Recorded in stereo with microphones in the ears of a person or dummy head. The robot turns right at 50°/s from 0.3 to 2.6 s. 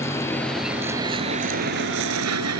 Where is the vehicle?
15° left (ahead or behind); by 2.6 s 80° right.